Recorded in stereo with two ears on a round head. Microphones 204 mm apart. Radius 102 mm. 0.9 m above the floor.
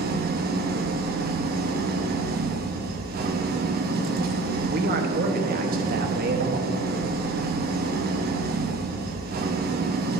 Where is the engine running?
45° right (ahead or behind), 0.8 m.